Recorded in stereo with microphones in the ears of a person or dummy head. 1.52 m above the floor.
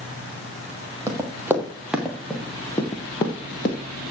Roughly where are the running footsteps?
Centre.